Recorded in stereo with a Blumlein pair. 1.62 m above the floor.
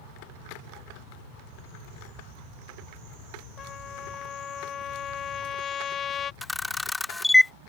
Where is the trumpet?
25° left.